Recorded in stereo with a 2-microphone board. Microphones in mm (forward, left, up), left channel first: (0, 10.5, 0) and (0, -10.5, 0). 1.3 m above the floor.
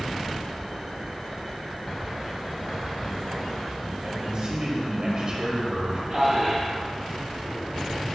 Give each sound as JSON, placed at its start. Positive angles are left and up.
{"t": 4.0, "sound": "a man speaking", "side_deg": -45, "distance_m": 3.5}
{"t": 6.1, "sound": "a man speaking", "side_deg": -5, "distance_m": 3.0}